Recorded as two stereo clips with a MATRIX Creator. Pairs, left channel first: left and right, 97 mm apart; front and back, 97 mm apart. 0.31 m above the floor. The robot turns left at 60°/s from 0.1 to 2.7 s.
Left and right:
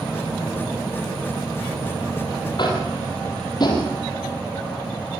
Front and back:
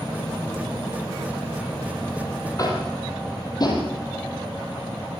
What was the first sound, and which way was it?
Tapping, 55° left.